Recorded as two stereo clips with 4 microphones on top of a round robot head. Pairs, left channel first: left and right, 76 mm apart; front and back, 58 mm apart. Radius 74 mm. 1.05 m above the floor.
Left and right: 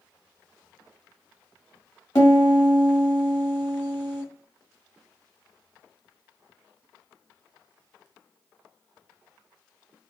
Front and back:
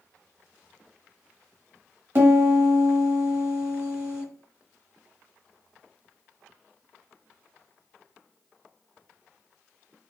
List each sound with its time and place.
2.1 s a piano: 145° left, 1.1 m